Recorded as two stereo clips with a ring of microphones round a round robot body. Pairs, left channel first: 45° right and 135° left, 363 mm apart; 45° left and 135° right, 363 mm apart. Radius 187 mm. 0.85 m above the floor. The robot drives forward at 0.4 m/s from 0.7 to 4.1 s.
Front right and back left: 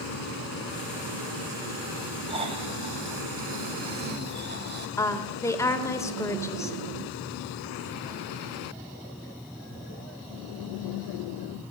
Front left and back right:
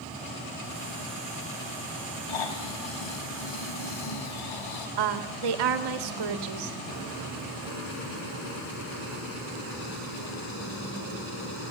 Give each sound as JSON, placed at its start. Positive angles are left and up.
{"t": 2.3, "sound": "snoring", "azimuth_deg": 60, "distance_m": 3.0}
{"t": 5.0, "sound": "a woman speaking", "azimuth_deg": -125, "distance_m": 2.5}